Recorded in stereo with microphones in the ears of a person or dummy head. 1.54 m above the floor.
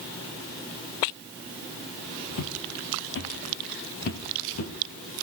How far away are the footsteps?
About 3.5 m.